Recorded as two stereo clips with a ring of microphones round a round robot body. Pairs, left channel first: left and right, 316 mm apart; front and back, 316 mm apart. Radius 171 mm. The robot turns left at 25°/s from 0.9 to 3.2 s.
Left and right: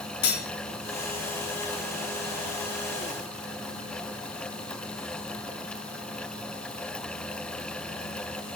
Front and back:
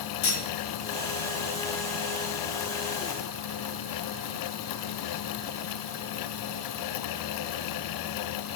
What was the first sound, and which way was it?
Cutlery clinking, 50° left.